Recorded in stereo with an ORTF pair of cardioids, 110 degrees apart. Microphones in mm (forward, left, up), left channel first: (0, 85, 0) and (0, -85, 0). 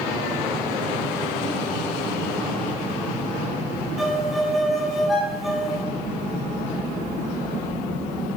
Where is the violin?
Straight ahead, 3 m.